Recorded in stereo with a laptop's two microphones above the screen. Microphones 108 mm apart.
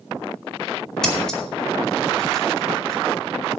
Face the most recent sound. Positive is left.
turn(degrees=5)  # may be behind; listen again after turning